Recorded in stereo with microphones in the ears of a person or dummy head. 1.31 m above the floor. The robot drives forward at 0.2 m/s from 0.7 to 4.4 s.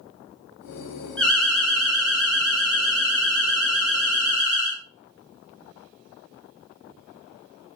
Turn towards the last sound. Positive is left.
turn(degrees=0)  # may be behind; listen again after turning